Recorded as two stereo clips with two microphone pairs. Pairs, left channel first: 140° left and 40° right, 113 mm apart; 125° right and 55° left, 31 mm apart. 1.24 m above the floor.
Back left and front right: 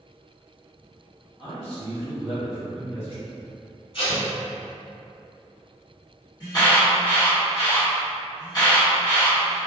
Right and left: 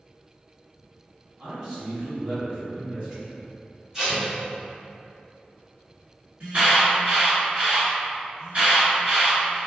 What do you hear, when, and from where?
1.4 s a man speaking: 125° left, 2.0 m
3.9 s tape being pulled: 130° left, 1.5 m
6.4 s an alarm: 100° left, 1.7 m